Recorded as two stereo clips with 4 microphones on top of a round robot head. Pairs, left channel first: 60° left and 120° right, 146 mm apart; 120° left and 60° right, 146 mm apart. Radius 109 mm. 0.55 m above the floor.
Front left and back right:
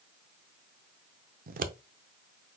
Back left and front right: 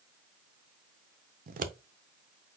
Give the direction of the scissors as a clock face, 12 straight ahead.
3 o'clock.